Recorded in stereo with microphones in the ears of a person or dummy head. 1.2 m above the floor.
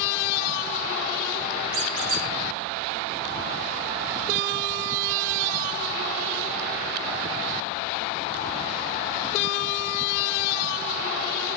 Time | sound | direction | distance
1.7 | a squeak | 60° right (ahead or behind) | 1.7 m